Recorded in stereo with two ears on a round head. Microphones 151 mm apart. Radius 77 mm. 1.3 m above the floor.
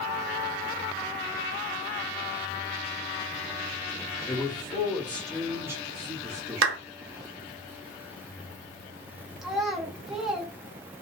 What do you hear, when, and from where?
4.3 s a man speaking: 30° left (ahead or behind), 1.3 m; by 6.8 s 55° right (ahead or behind), 1.0 m
6.6 s a clap: 75° right (ahead or behind), 0.7 m
9.4 s a child speaking: 5° right (ahead or behind), 1.0 m